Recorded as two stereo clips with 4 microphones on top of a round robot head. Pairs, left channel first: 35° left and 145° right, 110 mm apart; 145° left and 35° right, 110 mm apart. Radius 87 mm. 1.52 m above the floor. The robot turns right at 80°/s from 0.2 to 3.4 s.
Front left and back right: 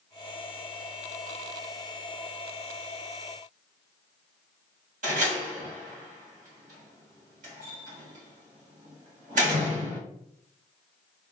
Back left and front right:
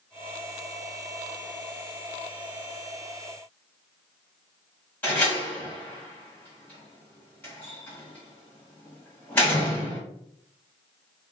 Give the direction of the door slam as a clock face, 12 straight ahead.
5 o'clock.